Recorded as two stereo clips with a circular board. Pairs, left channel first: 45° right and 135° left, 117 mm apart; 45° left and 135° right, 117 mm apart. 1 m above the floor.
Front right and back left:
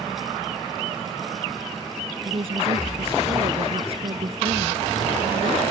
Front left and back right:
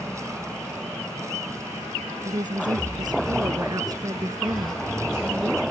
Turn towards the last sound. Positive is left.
turn(degrees=160)